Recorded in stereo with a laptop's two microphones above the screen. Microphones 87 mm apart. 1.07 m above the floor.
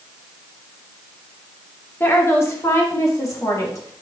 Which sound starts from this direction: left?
A woman speaking, at 2.0 s.